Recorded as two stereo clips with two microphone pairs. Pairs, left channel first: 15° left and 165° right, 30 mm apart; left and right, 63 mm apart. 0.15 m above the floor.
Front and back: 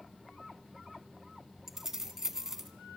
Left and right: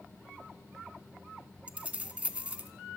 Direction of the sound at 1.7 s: 120° right.